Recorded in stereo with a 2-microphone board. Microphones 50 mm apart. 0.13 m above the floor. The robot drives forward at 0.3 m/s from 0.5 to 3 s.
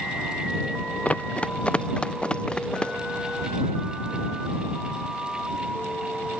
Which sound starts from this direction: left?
Running footsteps, at 1.1 s.